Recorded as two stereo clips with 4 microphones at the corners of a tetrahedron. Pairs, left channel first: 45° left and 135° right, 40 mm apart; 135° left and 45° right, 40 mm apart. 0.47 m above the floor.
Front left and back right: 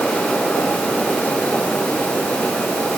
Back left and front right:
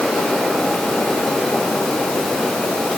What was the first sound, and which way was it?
Only background noise.